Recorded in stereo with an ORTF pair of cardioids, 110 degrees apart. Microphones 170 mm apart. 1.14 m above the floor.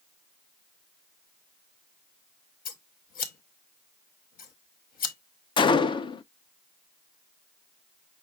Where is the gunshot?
30° left, 0.5 m.